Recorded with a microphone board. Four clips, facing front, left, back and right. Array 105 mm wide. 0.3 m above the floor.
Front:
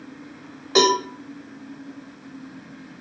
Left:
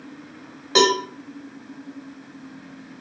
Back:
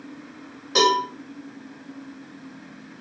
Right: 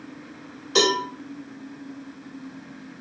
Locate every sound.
0.8 s a cowbell: 60° left, 2.0 m